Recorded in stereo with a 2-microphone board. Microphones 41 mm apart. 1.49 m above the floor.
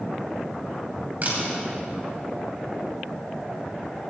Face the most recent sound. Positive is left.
turn(degrees=-45)  # may be behind; listen again after turning